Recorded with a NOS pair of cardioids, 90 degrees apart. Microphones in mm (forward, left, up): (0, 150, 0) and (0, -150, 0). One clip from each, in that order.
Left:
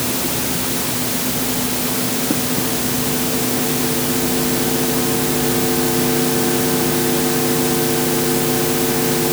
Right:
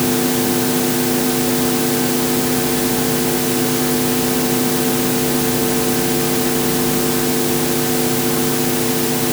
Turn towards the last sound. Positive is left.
No sound to turn to.